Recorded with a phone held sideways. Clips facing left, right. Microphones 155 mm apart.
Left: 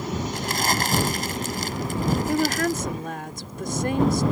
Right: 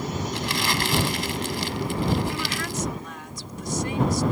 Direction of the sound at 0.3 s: 45° left (ahead or behind).